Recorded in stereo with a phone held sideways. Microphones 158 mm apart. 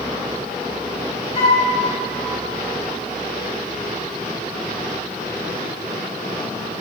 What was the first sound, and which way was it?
A flute, 45° left (ahead or behind).